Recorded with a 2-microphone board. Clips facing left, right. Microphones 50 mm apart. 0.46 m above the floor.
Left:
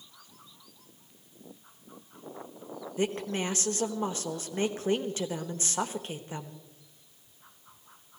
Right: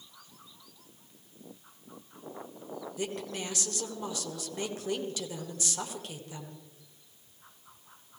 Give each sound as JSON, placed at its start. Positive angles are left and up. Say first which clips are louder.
{"t": 3.0, "sound": "a woman speaking", "louder": "left 7 dB", "side_deg": 35, "distance_m": 1.4}